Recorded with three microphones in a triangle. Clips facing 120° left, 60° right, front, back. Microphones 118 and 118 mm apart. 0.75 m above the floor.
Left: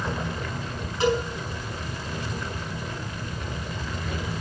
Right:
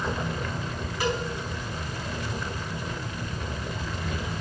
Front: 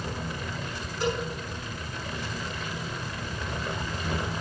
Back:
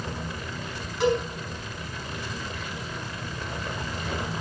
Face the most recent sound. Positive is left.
turn(degrees=-175)